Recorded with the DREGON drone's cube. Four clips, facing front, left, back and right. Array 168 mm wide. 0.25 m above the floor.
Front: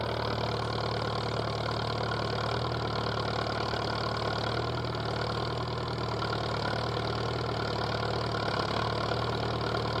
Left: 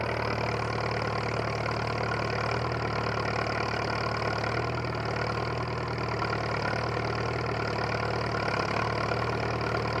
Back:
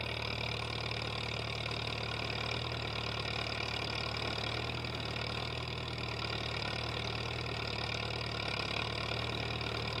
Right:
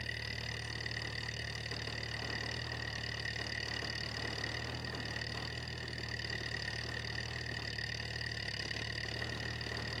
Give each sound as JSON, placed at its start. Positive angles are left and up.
{"t": 0.0, "sound": "an engine running", "azimuth_deg": 60}